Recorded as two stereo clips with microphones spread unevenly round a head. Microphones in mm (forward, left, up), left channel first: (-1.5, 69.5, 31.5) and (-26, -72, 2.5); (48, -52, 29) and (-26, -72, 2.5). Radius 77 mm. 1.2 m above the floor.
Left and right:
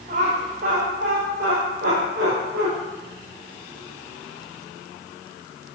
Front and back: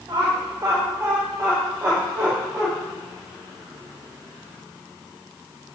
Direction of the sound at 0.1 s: 130° right.